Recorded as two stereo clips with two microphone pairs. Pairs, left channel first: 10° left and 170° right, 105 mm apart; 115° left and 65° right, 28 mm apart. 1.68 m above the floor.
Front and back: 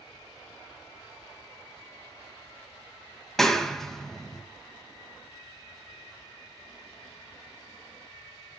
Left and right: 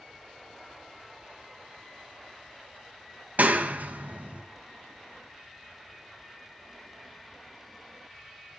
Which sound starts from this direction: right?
A clap, at 3.4 s.